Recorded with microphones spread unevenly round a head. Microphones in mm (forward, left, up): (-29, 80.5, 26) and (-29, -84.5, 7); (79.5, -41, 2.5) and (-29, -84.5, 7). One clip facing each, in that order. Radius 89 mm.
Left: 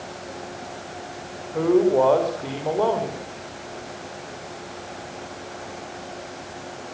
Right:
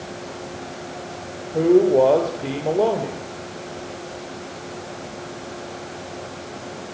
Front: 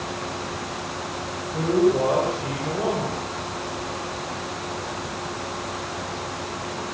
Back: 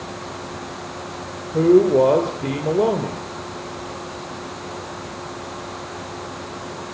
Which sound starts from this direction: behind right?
A man speaking, at 1.5 s.